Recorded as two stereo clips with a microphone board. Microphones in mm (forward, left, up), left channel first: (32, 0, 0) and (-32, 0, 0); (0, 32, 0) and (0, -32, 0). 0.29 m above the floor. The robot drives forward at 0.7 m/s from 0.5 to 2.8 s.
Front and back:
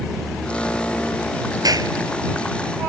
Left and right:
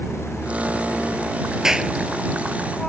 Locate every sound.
1.6 s a clap: 170° right